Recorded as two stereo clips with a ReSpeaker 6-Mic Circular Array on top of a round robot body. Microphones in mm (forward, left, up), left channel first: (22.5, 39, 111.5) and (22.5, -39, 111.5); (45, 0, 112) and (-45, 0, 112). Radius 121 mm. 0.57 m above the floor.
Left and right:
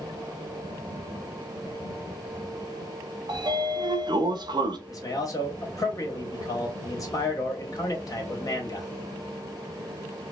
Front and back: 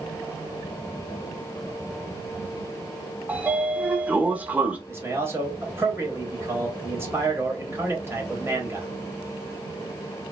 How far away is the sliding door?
About 0.5 m.